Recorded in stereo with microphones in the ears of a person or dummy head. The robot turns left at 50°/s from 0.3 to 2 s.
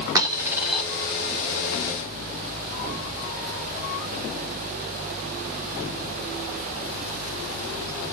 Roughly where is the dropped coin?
Centre.